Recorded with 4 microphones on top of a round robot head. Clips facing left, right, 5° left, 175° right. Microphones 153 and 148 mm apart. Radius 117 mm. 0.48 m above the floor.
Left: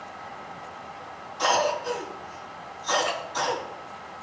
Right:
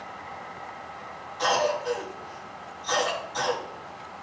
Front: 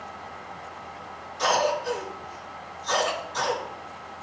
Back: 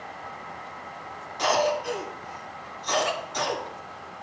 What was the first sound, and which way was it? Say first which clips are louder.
A cough: even, even; 170° left.